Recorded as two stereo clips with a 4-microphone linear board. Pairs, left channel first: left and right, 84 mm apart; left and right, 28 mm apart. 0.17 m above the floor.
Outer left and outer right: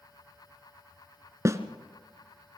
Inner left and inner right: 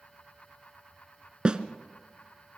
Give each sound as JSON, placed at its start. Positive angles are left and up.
{"t": 1.4, "sound": "a snare drum", "side_deg": -35, "distance_m": 1.2}